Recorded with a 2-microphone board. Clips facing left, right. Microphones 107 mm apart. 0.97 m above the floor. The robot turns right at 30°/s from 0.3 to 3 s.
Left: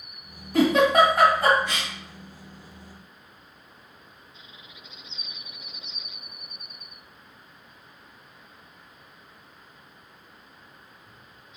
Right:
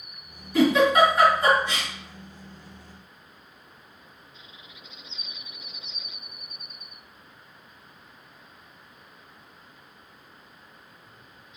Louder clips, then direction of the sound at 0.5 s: Even; 55° left (ahead or behind).